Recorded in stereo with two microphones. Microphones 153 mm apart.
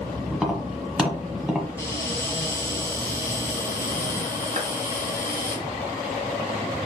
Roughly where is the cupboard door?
Right.